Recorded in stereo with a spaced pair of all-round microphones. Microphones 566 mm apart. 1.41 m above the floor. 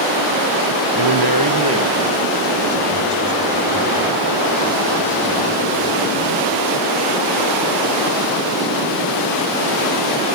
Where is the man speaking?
55° right (ahead or behind), 1.0 m; by 6.4 s centre (ahead or behind), 8 m.